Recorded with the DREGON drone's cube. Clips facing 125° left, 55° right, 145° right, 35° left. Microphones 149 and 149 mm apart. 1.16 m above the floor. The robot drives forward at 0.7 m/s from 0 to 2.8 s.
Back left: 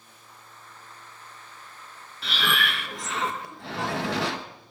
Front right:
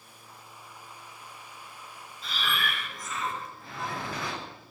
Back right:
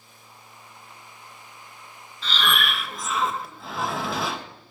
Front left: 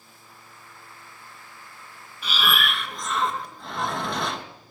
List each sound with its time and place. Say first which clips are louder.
2.2 s breathing: back left 4 dB, even; 110° left, 1.1 m; by 4.4 s 130° left, 1.3 m